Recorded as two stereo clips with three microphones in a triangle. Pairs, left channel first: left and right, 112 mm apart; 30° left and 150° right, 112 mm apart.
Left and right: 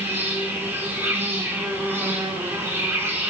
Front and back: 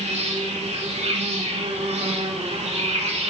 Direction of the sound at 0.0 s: 160° right.